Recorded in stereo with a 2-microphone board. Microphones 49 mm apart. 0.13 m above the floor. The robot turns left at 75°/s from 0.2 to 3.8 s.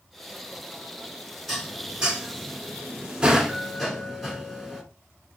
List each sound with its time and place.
1.5 s dishes clattering: centre (ahead or behind), 1.0 m; by 4.8 s 5° right (ahead or behind), 1.0 m